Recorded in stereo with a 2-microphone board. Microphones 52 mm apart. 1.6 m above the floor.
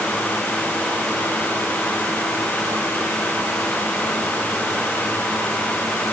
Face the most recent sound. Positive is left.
No sound to turn to.